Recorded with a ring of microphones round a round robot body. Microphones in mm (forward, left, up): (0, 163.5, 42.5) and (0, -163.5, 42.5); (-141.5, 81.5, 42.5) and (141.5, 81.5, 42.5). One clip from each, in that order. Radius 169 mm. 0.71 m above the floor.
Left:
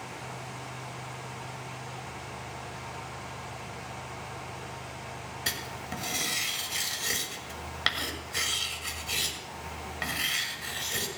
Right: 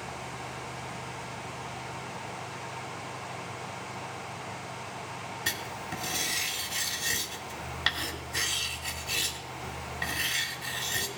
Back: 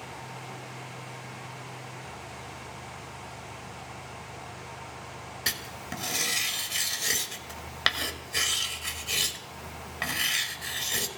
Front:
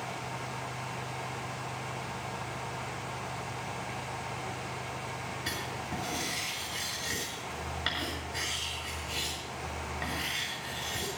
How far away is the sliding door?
I don't hear a sliding door.